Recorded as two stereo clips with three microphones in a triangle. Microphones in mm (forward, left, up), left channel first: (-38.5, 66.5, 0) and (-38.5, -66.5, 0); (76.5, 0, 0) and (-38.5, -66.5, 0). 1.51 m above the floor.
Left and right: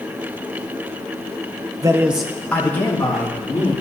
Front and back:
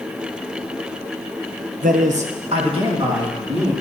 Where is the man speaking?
155° right, 0.9 m; by 3.7 s 155° left, 3.5 m.